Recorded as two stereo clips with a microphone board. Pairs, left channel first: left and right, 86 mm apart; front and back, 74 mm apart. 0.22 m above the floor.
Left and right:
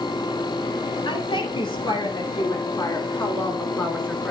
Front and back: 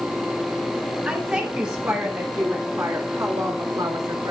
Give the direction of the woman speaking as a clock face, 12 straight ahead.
8 o'clock.